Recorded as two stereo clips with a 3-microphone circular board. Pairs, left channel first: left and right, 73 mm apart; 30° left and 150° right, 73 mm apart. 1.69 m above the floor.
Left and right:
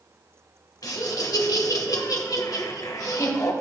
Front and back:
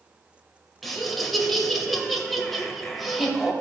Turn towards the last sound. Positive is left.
turn(degrees=120)